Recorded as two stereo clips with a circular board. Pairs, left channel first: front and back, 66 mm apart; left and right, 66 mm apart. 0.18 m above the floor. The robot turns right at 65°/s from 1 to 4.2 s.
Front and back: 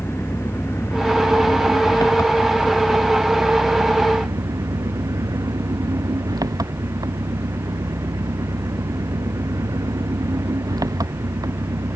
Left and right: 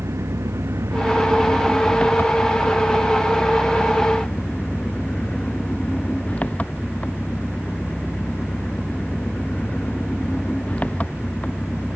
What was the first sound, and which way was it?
An engine running, 50° right.